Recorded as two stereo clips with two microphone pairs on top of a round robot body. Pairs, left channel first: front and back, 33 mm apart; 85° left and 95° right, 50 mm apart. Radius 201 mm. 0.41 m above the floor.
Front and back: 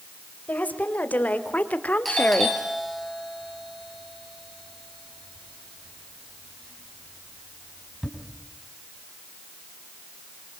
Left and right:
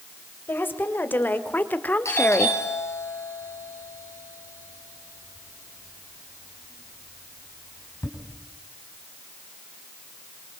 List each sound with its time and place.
0.5 s a woman speaking: 40° left, 3.5 m; by 2.6 s 30° left, 1.7 m
2.0 s a doorbell: 90° left, 6.5 m